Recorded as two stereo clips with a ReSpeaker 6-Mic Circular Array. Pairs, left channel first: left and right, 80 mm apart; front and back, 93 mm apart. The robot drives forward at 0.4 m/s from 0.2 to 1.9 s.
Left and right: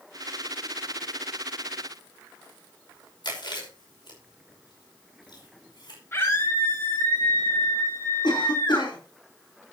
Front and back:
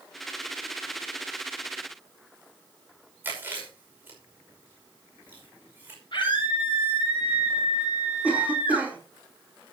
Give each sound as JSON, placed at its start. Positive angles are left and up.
{"t": 3.2, "sound": "chewing", "azimuth_deg": 110, "distance_m": 5.5}
{"t": 6.1, "sound": "a scream", "azimuth_deg": 30, "distance_m": 8.5}
{"t": 8.2, "sound": "a cough", "azimuth_deg": 105, "distance_m": 4.5}